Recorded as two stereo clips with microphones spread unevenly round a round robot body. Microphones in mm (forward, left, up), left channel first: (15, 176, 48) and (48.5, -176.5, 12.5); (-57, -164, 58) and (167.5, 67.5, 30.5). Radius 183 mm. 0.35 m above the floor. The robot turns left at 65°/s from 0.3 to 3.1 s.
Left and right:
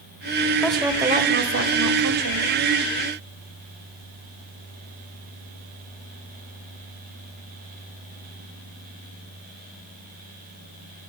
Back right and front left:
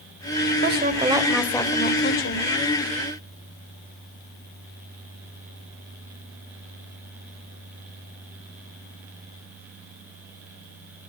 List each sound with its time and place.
0.6 s a woman speaking: 10° left, 1.5 m; by 2.5 s 115° right, 1.5 m